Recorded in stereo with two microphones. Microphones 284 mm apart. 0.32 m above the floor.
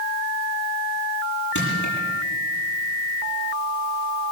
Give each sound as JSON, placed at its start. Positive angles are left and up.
{"t": 1.6, "sound": "crushing", "side_deg": 80, "distance_m": 9.0}